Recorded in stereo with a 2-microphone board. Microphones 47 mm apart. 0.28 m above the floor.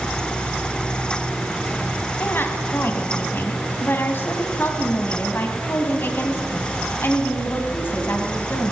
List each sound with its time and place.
2.2 s a woman speaking: 50° left (ahead or behind), 2 m